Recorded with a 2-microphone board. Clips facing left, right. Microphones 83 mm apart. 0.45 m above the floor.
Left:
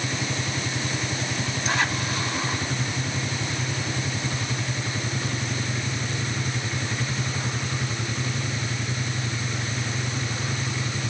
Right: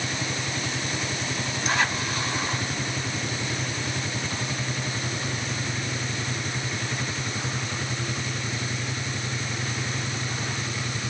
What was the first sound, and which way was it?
Only background noise.